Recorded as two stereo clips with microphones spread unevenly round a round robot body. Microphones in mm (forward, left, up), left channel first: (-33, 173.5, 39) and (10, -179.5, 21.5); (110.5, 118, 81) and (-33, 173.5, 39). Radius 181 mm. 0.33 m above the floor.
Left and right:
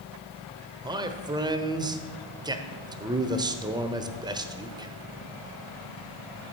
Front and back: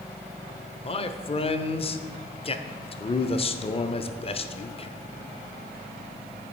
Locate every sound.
0.8 s a man speaking: 35° right, 1.0 m